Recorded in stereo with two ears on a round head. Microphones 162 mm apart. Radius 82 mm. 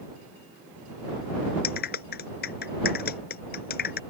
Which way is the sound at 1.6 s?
60° left (ahead or behind).